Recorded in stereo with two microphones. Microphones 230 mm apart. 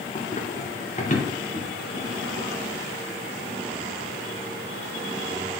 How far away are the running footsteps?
About 1.6 m.